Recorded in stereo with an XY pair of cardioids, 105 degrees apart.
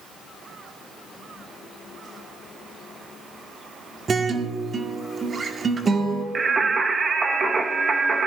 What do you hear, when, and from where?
4.1 s a guitar: 35° right, 1.6 m
6.3 s singing: 35° right, 1.2 m